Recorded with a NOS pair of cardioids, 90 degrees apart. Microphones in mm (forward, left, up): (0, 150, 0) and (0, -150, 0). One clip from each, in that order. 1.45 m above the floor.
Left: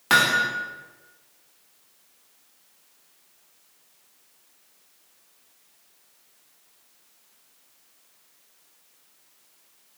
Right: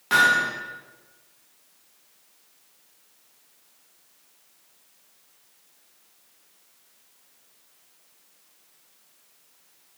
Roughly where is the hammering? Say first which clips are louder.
Right 1 dB; ahead left.